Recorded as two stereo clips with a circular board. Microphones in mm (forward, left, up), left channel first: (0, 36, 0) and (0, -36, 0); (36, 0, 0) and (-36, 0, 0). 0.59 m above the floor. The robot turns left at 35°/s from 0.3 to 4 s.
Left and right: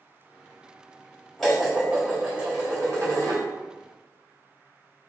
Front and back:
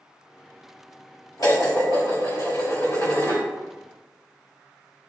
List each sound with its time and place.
1.4 s dishes clattering: 5° left, 1.8 m; by 3.4 s 65° right, 1.8 m